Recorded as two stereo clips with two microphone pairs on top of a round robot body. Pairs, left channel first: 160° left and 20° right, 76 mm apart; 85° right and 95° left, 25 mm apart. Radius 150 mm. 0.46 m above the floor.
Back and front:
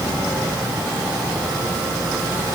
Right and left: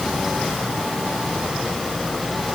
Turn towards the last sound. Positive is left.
No sound to turn to.